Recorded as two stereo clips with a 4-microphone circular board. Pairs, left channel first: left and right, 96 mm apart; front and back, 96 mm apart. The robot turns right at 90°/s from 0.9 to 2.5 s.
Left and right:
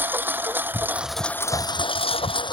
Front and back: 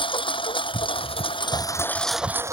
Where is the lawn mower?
20° right; by 2.5 s 125° left.